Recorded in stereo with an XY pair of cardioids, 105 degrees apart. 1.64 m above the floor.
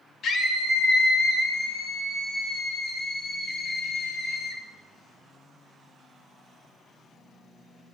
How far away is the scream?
About 3 m.